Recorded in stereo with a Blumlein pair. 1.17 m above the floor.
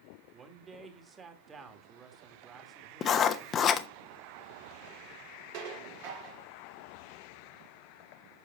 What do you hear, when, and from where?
0.3 s a man speaking: 20° right, 2 m
3.0 s writing: 25° left, 1.0 m
5.5 s dishes clattering: 45° right, 1.9 m